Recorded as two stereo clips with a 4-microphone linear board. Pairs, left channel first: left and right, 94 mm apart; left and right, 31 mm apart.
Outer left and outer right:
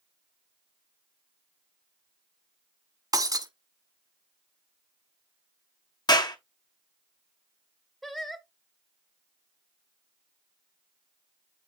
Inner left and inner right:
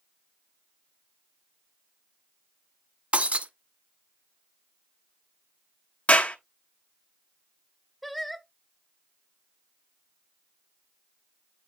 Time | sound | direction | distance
3.1 | breaking glass | 40° right (ahead or behind) | 0.9 m
6.1 | a clap | 50° left (ahead or behind) | 1.2 m
8.0 | singing | 5° left (ahead or behind) | 0.9 m